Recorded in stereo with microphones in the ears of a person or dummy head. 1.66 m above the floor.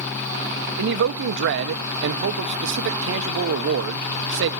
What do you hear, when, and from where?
0.8 s a man speaking: 65° right (ahead or behind), 1.1 m